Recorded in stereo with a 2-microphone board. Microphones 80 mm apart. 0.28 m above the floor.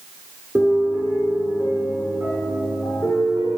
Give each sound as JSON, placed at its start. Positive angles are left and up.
{"t": 0.6, "sound": "a piano", "side_deg": -5, "distance_m": 2.5}